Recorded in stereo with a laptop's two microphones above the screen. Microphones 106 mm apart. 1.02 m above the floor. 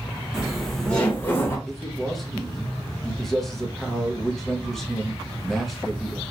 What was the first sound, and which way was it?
Laughter, 5° right (ahead or behind).